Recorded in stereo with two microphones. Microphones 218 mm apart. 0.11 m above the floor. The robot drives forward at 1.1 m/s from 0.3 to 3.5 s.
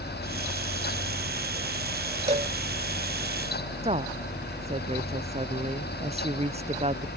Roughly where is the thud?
I don't hear a thud.